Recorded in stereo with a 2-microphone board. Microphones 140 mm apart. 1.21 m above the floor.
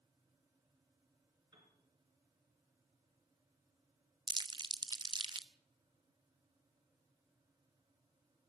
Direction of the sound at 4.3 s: 35° right (ahead or behind).